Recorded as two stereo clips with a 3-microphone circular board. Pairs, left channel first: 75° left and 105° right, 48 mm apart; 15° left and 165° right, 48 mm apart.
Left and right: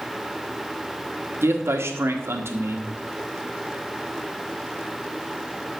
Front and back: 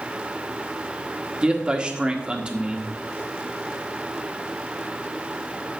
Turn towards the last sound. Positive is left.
turn(degrees=-95)